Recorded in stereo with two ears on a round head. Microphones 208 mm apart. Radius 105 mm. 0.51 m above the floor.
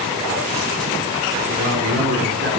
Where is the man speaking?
50° right (ahead or behind), 4.5 m.